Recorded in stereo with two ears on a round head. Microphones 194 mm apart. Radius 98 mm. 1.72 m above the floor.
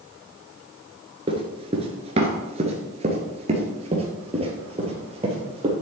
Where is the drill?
No drill in this recording.